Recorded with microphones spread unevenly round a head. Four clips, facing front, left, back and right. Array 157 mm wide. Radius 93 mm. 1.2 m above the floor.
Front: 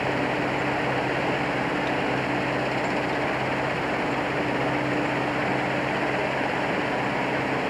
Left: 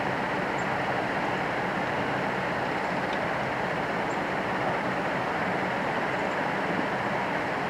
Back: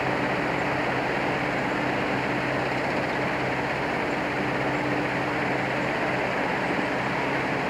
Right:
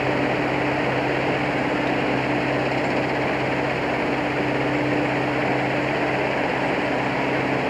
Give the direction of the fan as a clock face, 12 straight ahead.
3 o'clock.